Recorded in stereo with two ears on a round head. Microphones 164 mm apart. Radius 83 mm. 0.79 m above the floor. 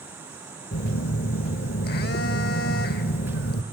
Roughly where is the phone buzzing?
Left.